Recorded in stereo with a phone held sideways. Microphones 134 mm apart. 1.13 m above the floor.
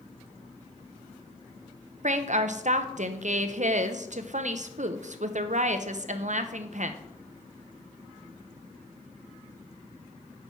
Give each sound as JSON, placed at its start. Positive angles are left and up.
{"t": 2.0, "sound": "a woman speaking", "side_deg": -60, "distance_m": 0.5}